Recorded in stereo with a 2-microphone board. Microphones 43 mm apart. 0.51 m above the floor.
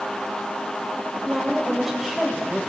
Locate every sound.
1.2 s a woman speaking: 5° right (ahead or behind), 2 m